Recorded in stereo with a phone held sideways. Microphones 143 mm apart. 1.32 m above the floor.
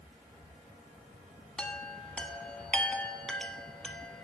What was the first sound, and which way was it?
A chime, 5° left (ahead or behind).